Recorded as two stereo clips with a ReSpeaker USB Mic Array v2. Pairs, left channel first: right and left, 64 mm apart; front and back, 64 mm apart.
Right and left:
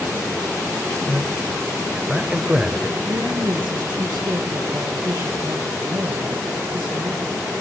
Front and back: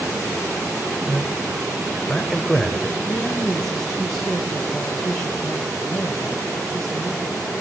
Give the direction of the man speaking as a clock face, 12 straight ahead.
9 o'clock.